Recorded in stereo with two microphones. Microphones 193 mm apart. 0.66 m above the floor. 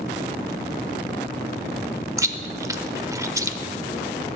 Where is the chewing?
15° right (ahead or behind), 0.7 m.